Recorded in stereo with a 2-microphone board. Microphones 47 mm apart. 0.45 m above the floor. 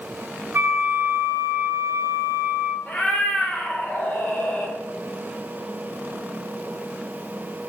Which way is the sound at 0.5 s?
55° right (ahead or behind).